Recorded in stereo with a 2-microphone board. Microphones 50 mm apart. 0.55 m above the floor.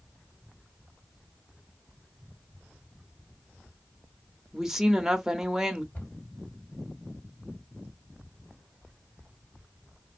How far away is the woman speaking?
About 0.7 m.